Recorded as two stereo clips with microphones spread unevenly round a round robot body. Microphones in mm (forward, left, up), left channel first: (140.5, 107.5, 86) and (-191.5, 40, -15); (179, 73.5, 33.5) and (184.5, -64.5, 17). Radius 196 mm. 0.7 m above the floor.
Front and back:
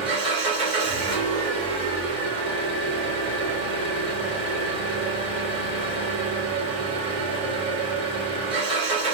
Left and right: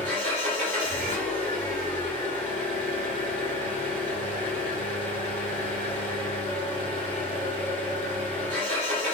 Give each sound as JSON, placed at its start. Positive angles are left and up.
{"t": 0.0, "sound": "an engine running", "azimuth_deg": -95, "distance_m": 2.0}